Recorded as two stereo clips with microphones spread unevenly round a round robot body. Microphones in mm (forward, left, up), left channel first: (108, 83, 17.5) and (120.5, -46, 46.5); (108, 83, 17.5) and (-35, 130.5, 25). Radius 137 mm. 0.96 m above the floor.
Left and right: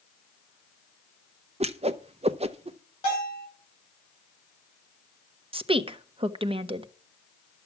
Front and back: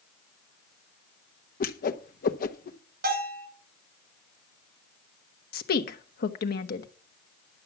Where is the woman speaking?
30° right, 1.2 m.